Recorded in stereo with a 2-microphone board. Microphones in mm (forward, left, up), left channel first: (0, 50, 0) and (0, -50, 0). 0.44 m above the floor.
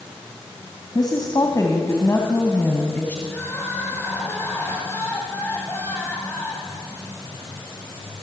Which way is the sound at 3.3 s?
20° left (ahead or behind).